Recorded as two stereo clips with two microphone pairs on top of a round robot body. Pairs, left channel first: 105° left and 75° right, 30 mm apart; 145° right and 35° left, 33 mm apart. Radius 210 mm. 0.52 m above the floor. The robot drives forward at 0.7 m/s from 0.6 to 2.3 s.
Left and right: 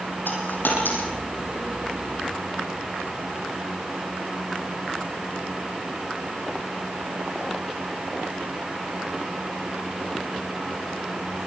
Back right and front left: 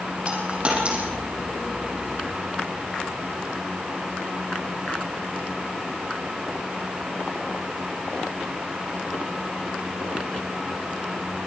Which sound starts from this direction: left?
A dropped coin, at 0.3 s.